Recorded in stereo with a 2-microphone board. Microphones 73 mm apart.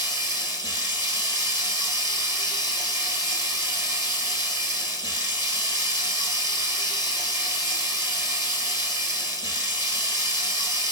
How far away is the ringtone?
I don't hear a ringtone.